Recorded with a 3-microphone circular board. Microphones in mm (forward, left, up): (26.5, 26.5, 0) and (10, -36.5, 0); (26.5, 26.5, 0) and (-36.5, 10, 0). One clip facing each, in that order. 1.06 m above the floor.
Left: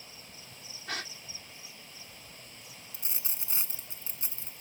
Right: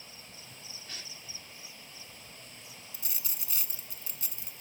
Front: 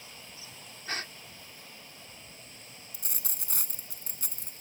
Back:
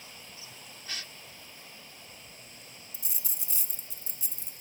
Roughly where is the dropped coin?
Ahead.